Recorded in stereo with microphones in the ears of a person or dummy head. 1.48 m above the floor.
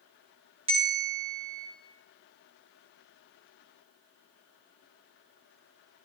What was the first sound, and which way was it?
A bell, 30° right (ahead or behind).